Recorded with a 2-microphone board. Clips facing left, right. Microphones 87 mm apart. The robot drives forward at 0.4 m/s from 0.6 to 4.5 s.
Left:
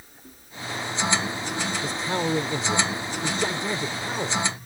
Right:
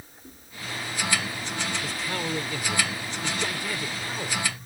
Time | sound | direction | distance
1.8 | a man speaking | 25° left (ahead or behind) | ?